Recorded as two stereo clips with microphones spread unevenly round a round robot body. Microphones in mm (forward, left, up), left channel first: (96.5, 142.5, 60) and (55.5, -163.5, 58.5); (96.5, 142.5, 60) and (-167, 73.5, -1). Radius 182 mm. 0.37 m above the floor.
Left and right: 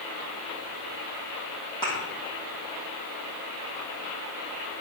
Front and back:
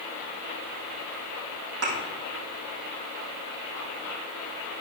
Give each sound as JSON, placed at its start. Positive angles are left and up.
{"t": 1.8, "sound": "a thud", "azimuth_deg": 160, "distance_m": 4.5}